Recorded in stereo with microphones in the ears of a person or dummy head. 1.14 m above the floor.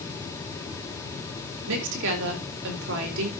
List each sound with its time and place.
1.7 s a woman speaking: 75° right (ahead or behind), 4.5 m